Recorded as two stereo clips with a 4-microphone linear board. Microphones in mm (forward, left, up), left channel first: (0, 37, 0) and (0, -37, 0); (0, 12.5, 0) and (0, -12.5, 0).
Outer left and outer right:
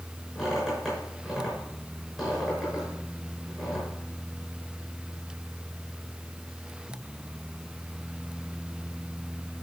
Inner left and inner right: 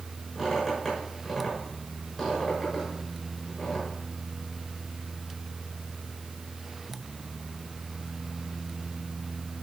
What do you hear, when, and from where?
0.3 s a squeak: centre (ahead or behind), 6 m